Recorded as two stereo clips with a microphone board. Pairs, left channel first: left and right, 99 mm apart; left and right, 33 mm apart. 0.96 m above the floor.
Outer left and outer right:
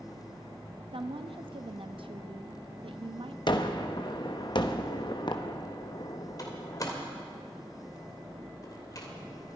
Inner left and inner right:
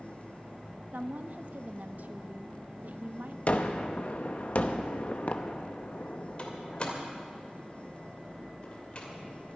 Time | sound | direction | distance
0.9 | a woman speaking | 60° right (ahead or behind) | 0.9 m
3.5 | a gunshot | 50° left (ahead or behind) | 0.9 m
6.4 | a door slam | 40° left (ahead or behind) | 2.5 m